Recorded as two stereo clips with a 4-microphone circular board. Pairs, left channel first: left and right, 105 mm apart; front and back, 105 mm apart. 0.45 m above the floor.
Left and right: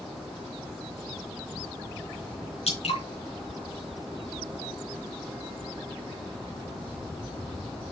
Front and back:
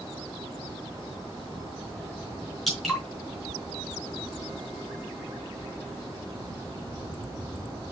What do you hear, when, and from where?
2.7 s dripping: 90° left, 3.5 m